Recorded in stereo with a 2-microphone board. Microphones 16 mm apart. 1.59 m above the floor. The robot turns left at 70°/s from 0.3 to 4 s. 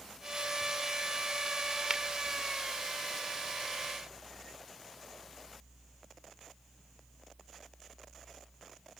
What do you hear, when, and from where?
1.9 s a finger snap: 35° right (ahead or behind); by 2.0 s 45° right (ahead or behind)